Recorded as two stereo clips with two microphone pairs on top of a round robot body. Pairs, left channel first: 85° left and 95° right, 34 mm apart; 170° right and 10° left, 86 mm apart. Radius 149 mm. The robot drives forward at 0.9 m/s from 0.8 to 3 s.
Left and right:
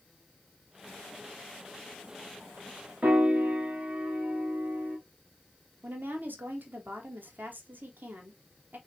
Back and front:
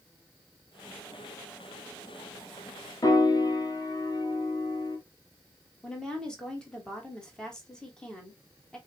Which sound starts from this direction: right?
A woman speaking, at 5.8 s.